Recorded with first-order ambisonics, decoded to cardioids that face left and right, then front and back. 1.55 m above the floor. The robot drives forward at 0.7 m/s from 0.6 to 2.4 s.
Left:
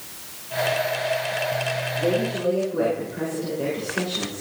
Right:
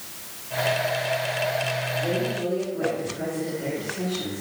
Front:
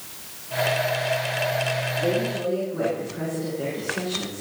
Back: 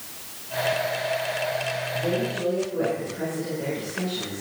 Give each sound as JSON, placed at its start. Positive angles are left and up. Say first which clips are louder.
{"t": 2.0, "sound": "a woman speaking", "louder": "left 3 dB, front 1 dB", "azimuth_deg": 70, "distance_m": 6.0}